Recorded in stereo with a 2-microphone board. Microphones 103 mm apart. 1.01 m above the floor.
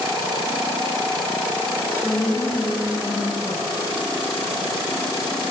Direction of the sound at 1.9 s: 20° left (ahead or behind).